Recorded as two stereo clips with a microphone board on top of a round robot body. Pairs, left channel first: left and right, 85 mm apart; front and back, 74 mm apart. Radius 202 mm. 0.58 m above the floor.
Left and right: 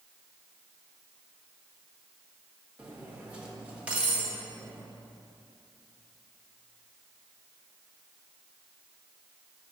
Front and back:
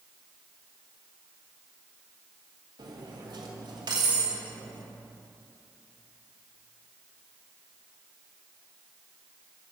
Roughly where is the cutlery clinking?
Behind.